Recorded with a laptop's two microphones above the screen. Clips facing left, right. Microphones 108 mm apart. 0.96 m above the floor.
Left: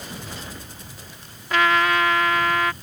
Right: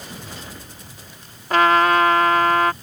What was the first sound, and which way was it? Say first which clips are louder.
A trumpet: right 4 dB; 45° right (ahead or behind).